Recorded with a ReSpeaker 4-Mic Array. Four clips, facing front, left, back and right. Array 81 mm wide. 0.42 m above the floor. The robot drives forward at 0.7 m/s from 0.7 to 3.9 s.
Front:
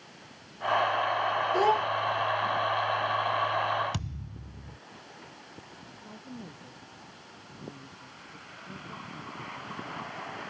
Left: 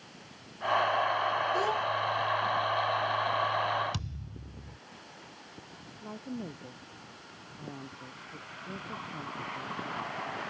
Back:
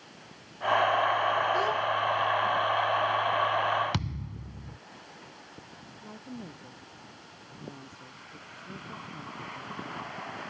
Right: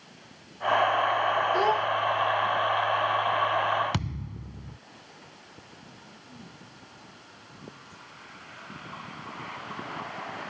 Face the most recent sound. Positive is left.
turn(degrees=100)